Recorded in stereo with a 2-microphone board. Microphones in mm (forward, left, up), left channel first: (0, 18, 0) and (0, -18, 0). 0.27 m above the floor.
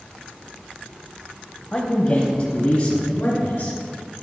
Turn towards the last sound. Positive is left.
turn(degrees=60)  # may be behind; listen again after turning